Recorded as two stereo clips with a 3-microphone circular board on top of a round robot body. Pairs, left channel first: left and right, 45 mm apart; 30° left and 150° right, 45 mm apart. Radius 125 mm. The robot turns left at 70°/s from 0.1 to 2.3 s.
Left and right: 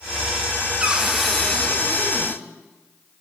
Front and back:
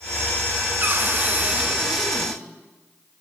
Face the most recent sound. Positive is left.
turn(degrees=105)